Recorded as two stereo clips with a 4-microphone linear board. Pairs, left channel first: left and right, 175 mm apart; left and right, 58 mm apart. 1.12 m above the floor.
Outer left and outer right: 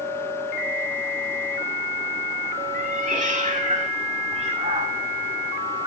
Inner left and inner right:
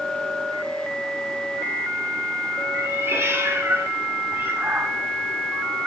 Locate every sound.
2.7 s a cat meowing: 50° right (ahead or behind), 3.5 m; by 5.9 s 25° right (ahead or behind), 2.5 m